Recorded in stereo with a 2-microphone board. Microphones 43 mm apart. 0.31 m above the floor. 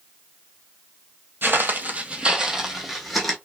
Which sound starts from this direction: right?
Footsteps, at 1.4 s.